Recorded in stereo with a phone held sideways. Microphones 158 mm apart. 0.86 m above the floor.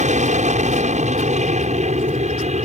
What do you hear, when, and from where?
0.0 s an aircraft: 50° right (ahead or behind); by 2.6 s 45° right (ahead or behind)